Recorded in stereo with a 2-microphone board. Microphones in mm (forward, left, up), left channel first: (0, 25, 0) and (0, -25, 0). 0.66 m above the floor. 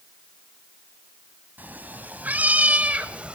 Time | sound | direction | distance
1.6 | a cat meowing | 35° right (ahead or behind) | 2.5 m